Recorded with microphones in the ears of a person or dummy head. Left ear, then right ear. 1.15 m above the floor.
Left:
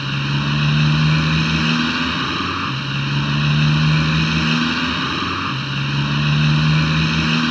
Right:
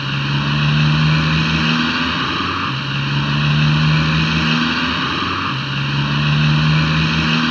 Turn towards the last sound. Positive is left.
turn(degrees=-10)  # may be behind; listen again after turning